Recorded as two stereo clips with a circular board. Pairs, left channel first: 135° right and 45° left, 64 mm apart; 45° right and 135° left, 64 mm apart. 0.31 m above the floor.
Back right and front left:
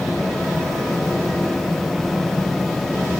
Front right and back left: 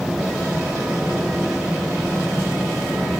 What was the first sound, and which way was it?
Only background noise.